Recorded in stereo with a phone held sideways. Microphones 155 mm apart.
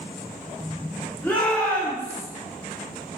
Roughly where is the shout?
Centre.